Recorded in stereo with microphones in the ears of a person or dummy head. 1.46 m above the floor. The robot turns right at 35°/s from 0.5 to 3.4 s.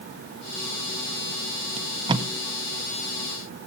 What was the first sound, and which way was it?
Tape being pulled, 40° right (ahead or behind).